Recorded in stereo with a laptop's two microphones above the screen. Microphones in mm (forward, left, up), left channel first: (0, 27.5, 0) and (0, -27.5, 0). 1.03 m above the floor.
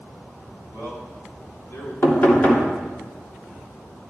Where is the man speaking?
75° left (ahead or behind), 3.5 m; by 1.9 s 60° left (ahead or behind), 4.5 m.